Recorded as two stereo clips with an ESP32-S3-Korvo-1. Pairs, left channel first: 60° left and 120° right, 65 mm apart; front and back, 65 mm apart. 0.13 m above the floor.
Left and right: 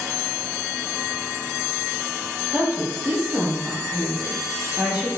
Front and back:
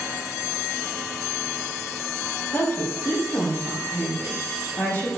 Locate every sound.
2.5 s a woman speaking: 50° right, 4 m; by 5.1 s 55° right, 5.5 m